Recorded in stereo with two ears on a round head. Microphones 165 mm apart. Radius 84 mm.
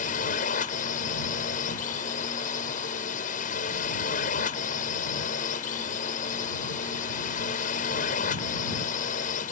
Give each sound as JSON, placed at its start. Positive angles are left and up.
{"t": 0.0, "sound": "a drone", "side_deg": 45}